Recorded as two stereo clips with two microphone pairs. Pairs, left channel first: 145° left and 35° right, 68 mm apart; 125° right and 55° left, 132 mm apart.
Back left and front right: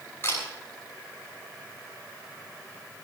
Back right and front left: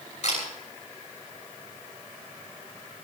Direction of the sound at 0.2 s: 160° right.